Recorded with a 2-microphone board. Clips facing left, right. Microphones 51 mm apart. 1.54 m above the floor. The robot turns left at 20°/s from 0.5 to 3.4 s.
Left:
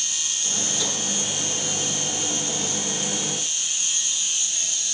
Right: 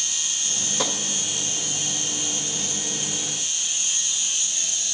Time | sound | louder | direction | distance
0.8 | tapping | right 6 dB | 45° right (ahead or behind) | 1.7 m